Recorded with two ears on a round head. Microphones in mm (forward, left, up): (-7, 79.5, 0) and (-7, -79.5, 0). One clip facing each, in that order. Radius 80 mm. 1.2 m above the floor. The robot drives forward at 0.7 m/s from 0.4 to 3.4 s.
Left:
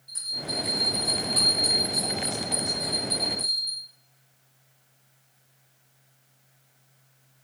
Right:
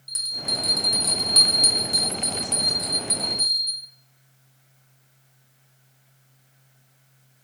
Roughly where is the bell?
Right.